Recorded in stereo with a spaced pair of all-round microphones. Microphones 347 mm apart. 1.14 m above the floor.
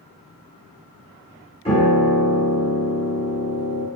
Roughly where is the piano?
Centre.